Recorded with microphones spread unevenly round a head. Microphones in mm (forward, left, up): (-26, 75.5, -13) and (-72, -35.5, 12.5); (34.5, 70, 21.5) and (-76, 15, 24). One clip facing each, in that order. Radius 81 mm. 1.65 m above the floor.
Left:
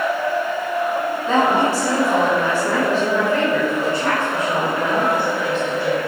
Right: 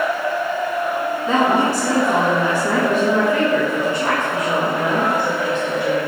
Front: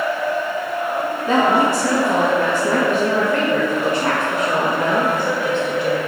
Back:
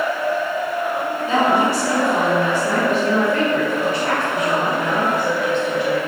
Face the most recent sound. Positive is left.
turn(degrees=-35)